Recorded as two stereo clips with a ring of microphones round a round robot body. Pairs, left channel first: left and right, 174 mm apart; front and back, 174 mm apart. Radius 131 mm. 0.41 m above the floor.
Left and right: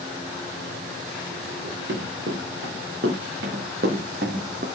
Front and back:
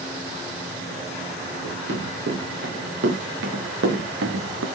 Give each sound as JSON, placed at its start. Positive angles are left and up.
{"t": 1.6, "sound": "running footsteps", "azimuth_deg": -135, "distance_m": 5.5}